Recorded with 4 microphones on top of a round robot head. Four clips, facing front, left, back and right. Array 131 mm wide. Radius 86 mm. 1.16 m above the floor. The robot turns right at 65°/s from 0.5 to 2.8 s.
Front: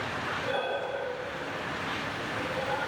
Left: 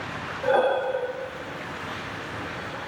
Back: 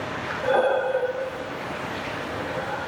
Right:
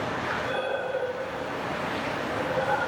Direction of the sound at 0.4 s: 125° left.